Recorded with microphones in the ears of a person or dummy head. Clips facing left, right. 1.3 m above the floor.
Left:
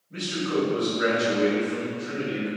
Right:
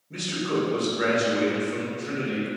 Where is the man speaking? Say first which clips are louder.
Left 1 dB; 80° right, 1.7 m.